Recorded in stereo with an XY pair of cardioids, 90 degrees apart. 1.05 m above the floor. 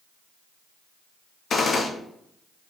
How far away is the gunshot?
About 0.8 m.